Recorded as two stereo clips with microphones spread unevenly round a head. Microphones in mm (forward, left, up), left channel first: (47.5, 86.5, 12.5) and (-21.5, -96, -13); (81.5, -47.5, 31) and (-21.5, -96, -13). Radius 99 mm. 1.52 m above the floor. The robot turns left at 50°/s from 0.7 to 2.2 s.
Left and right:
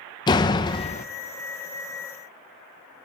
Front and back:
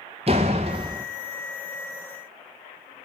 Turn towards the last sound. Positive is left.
turn(degrees=65)